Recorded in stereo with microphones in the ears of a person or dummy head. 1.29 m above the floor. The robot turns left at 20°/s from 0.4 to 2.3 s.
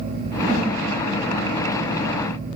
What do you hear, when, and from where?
0.4 s a whoosh: 55° right (ahead or behind), 1.3 m; by 0.7 s 50° right (ahead or behind), 1.3 m